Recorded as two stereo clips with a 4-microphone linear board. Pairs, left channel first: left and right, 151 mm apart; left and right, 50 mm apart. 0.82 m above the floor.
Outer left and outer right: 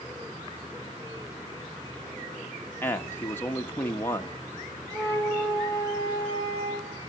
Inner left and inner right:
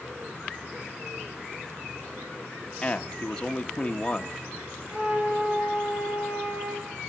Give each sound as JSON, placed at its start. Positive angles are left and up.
{"t": 2.8, "sound": "a man speaking", "side_deg": 15, "distance_m": 1.4}
{"t": 4.9, "sound": "a flute", "side_deg": -30, "distance_m": 3.5}